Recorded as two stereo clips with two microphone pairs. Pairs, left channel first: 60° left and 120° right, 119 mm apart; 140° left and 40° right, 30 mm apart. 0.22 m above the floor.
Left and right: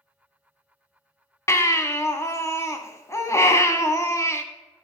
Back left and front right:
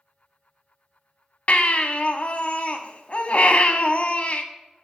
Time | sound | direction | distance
1.5 | a baby crying | 120° left | 0.6 m